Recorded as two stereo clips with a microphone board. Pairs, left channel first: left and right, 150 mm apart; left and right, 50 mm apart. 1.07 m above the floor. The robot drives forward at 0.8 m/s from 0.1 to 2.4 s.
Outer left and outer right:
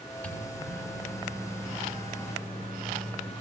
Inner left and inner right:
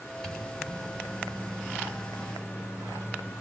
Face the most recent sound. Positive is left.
turn(degrees=15)  # may be behind; listen again after turning